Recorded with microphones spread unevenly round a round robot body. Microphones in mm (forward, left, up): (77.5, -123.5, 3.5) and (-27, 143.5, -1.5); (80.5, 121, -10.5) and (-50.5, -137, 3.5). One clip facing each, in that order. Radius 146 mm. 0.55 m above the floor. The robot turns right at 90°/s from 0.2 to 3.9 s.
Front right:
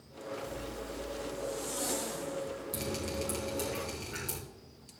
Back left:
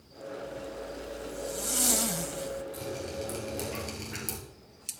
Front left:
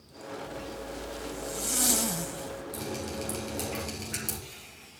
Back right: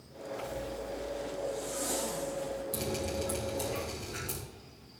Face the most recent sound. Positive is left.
turn(degrees=60)